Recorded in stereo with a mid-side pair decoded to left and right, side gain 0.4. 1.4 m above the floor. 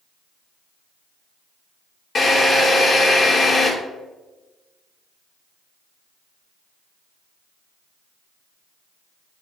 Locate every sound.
2.1 s a drill: 40° left, 3 m